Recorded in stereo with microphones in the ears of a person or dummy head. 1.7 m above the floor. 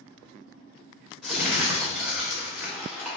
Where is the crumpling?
Centre (ahead or behind), 1.2 m.